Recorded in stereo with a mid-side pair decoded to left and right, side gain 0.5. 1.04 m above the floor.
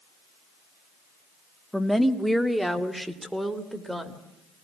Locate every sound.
1.7 s a woman speaking: straight ahead, 1.5 m; by 4.2 s 10° right, 3.5 m